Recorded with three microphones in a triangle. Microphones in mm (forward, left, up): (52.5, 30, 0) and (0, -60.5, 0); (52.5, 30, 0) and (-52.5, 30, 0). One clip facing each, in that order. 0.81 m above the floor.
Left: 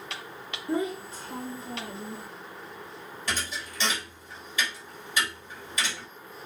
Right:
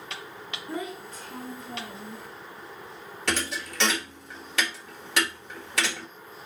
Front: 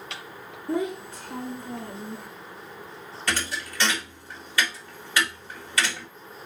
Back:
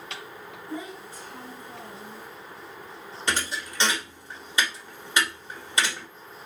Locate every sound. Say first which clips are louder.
0.7 s a child speaking: left 6 dB, front 10 dB; straight ahead, 0.6 m
3.3 s a thud: right 4 dB, even; 115° right, 1.5 m